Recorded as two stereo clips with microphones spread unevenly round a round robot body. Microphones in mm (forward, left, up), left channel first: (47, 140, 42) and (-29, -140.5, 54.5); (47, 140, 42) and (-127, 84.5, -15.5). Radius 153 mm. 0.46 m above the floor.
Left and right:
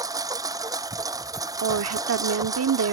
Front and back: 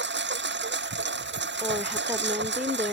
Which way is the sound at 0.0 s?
175° left.